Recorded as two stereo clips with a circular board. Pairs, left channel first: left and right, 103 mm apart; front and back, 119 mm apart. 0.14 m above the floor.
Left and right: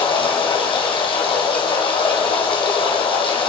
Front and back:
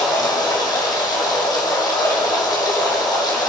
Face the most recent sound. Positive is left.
turn(degrees=55)